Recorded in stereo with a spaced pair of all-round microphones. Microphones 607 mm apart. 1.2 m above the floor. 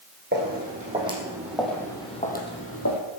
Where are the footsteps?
20° right (ahead or behind), 4 m; by 3.0 s 30° left (ahead or behind), 3 m.